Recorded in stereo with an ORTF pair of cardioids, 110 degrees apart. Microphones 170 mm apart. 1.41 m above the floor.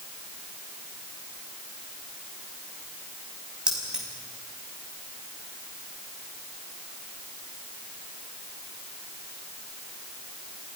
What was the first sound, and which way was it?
Keys jangling, 5° right.